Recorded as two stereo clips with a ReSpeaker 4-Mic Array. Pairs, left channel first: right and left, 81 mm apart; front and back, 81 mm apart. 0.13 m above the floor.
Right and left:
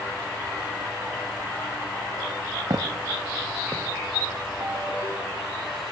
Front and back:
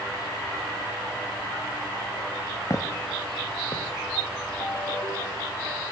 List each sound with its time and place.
2.7 s footsteps: 50° left, 2.5 m; by 3.9 s 25° left, 3.5 m
4.6 s a ringtone: 55° left, 7.5 m